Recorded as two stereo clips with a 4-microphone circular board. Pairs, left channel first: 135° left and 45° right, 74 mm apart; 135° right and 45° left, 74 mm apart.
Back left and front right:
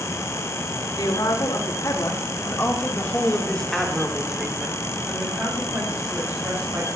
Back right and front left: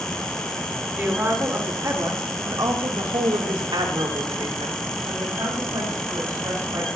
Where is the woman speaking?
105° left, 4 m; by 6.9 s 10° left, 6 m.